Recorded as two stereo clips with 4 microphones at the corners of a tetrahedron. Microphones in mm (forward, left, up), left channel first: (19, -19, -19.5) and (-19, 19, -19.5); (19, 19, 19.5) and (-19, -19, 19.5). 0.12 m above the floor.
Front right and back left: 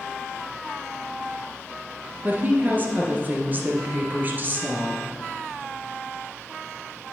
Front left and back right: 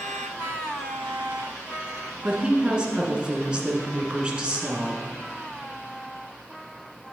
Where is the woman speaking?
160° left, 1.3 m.